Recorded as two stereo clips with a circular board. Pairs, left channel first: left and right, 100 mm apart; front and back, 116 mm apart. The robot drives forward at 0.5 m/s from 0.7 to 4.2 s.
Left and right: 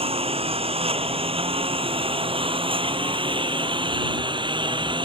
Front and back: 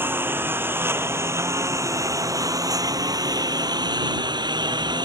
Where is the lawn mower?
105° right; by 5.0 s 125° right.